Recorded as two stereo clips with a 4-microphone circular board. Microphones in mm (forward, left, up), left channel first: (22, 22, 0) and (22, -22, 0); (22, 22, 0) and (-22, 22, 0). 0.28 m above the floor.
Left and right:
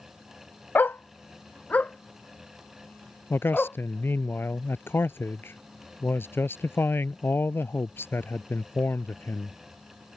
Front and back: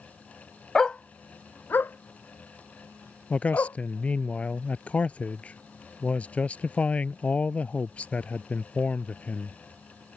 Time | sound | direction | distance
0.8 | a dog barking | 80° left | ?
3.3 | a man speaking | 60° left | ?